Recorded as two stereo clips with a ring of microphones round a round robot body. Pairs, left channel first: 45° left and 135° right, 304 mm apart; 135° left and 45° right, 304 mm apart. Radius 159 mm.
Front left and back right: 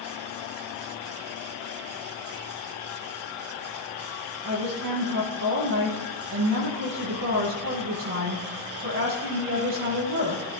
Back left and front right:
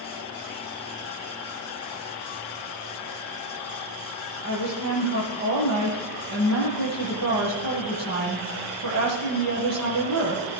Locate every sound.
4.4 s a woman speaking: 85° right, 10 m